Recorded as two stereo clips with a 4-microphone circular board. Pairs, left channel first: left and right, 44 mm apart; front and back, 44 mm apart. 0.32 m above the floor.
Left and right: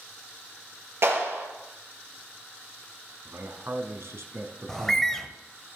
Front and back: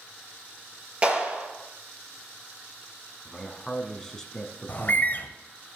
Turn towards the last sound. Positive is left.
turn(degrees=15)